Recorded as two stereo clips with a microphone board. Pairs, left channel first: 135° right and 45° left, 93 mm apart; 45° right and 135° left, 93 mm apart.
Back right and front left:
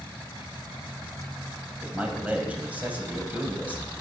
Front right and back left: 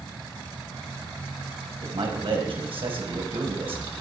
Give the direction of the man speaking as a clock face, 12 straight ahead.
8 o'clock.